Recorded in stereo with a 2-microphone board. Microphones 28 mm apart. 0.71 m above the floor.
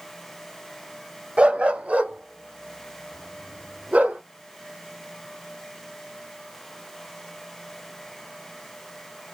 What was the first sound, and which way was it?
A dog barking, 50° right (ahead or behind).